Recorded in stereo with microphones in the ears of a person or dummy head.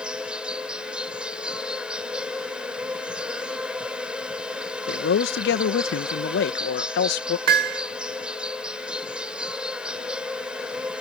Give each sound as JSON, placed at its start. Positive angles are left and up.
{"t": 0.0, "sound": "an insect", "side_deg": -5}
{"t": 4.9, "sound": "a man speaking", "side_deg": 65}
{"t": 7.5, "sound": "hammering", "side_deg": -70}